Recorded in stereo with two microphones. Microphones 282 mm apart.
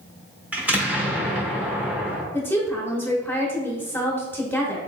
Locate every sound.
0.5 s an explosion: 5° right (ahead or behind), 0.9 m
2.3 s a woman speaking: 5° left (ahead or behind), 0.9 m